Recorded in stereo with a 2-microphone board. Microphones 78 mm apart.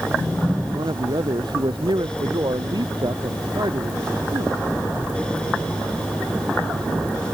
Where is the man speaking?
70° right (ahead or behind); by 4.5 s 65° right (ahead or behind).